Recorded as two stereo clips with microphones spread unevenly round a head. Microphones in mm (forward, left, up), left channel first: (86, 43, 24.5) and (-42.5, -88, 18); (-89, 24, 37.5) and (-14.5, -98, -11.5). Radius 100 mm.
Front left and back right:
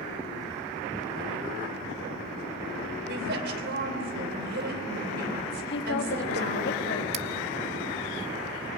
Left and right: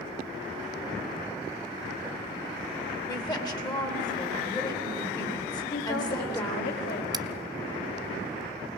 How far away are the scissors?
About 0.8 m.